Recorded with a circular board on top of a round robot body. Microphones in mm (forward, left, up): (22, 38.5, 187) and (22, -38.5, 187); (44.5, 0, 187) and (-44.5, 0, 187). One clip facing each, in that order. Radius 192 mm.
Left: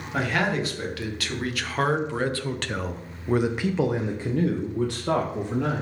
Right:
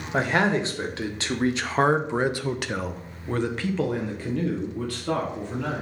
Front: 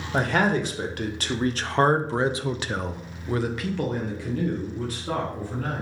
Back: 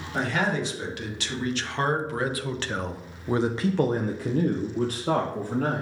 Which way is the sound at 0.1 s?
30° right.